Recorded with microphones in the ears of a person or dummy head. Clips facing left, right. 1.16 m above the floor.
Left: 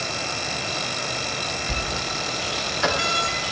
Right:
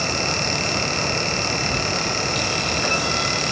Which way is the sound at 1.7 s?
65° left (ahead or behind).